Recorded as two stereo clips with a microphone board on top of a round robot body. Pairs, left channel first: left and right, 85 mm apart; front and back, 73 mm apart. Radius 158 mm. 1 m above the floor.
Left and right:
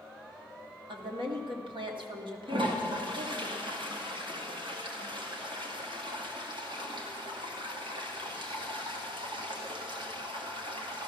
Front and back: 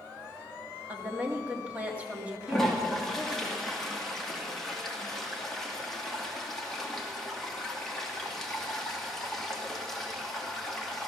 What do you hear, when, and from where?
0.9 s a woman speaking: 110° right, 2 m
2.5 s a toilet flushing: 85° right, 2.5 m